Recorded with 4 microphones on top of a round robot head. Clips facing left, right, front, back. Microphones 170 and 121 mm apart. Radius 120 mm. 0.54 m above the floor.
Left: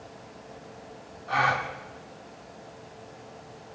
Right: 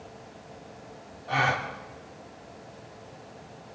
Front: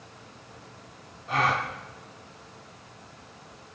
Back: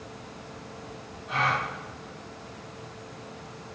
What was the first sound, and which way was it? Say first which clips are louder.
A gasp: even, front 2 dB; 30° right.